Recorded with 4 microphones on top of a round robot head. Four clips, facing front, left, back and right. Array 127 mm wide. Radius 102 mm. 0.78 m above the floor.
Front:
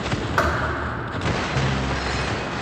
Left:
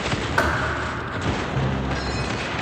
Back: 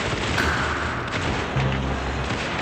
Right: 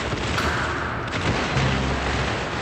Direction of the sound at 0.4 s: 30° left.